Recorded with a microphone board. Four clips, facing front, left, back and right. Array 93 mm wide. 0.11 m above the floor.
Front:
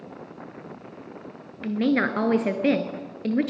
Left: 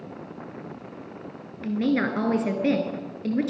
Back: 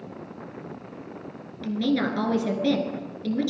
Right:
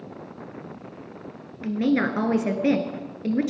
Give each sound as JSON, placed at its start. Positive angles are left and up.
{"t": 1.6, "sound": "a woman speaking", "azimuth_deg": -15, "distance_m": 1.5}